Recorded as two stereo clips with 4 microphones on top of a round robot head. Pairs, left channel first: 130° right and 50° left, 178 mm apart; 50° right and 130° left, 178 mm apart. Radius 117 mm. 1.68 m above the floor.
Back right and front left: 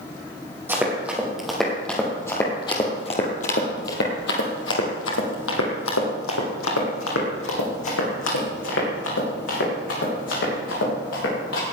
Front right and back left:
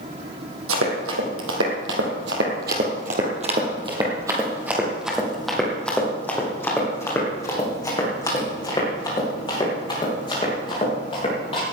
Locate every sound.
0.7 s running footsteps: 130° left, 3.5 m; by 11.6 s 110° right, 9 m